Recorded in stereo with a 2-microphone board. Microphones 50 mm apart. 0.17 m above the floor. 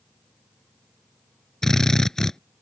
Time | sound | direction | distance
1.6 | a drill | 10° left (ahead or behind) | ?